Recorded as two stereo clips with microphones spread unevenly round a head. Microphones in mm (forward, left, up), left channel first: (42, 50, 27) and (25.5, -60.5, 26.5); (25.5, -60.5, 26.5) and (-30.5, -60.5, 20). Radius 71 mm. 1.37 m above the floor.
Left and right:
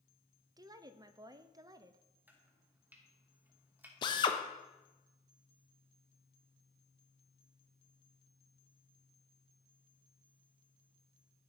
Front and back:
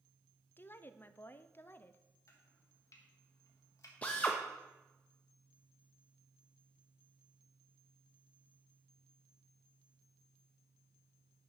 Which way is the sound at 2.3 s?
25° right.